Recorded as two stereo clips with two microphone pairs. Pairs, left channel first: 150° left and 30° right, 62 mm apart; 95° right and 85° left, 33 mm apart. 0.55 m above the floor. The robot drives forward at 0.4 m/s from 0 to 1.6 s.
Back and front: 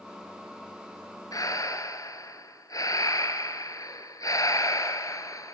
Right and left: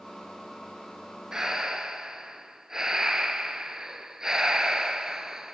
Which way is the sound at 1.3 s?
160° left.